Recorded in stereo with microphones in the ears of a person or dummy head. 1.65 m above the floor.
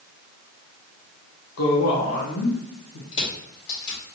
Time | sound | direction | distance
1.6 | a woman speaking | 85° left | 1.1 m
3.1 | crushing | 70° left (ahead or behind) | 2.5 m